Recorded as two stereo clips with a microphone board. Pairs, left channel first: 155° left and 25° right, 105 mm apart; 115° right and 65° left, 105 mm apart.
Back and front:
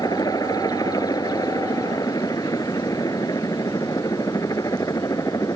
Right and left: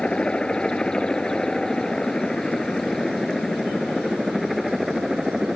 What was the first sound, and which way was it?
A helicopter, 175° left.